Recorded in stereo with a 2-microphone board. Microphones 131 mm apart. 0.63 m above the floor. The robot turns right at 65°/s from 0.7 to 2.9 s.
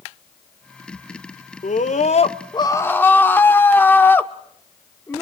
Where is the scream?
80° left, 1.2 m; by 5.2 s 165° left, 1.2 m.